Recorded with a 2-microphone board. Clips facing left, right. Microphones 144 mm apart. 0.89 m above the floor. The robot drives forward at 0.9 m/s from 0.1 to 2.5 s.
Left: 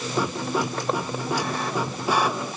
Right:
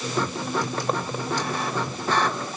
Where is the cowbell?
I don't hear a cowbell.